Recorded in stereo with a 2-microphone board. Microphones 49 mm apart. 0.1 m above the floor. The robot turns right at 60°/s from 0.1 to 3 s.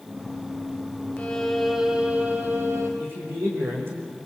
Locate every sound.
1.2 s a violin: 155° left, 4 m; by 2.9 s 100° right, 4 m
3.0 s a man speaking: 50° right (ahead or behind), 7.5 m